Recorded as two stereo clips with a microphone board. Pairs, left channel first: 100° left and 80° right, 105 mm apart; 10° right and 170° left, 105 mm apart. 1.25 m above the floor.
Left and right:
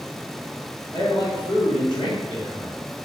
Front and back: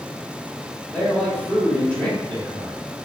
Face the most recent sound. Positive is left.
turn(degrees=60)